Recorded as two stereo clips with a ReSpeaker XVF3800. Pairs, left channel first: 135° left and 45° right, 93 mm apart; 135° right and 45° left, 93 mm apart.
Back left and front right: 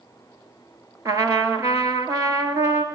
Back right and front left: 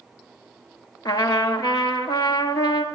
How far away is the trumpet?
About 1.0 m.